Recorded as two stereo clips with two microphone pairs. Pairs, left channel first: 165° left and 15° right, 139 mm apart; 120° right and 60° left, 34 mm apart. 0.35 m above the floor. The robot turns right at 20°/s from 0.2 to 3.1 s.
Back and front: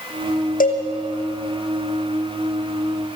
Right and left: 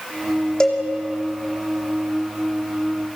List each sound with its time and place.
0.6 s a cowbell: 165° left, 2.5 m; by 0.8 s 170° left, 2.5 m